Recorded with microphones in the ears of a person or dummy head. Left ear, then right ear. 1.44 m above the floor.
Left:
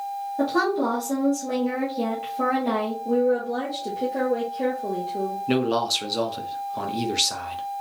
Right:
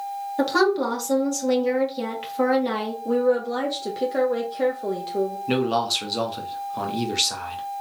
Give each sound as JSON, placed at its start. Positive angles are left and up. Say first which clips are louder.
{"t": 0.4, "sound": "a woman speaking", "louder": "right 2 dB", "side_deg": -45, "distance_m": 1.7}
{"t": 3.0, "sound": "a woman speaking", "louder": "right 2 dB", "side_deg": -50, "distance_m": 1.0}
{"t": 5.5, "sound": "a man speaking", "louder": "left 1 dB", "side_deg": 5, "distance_m": 0.9}